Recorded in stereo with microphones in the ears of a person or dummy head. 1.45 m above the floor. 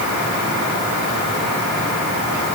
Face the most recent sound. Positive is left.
No sound to turn to.